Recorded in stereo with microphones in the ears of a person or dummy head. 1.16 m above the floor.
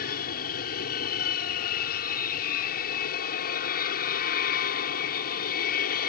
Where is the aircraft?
50° left (ahead or behind).